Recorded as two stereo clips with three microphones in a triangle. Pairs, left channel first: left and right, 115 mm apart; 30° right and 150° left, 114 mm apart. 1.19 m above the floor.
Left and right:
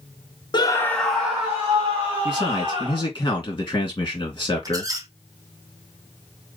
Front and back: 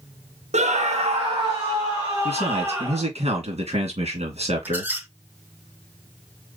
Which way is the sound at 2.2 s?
145° left.